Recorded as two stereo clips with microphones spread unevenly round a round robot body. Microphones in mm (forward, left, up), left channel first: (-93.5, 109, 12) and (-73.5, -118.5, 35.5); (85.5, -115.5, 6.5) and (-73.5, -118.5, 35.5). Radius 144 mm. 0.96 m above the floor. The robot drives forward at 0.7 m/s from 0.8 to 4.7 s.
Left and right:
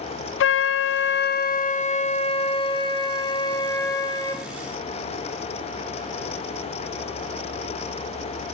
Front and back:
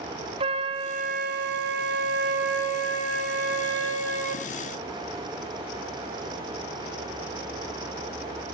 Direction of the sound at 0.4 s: 110° left.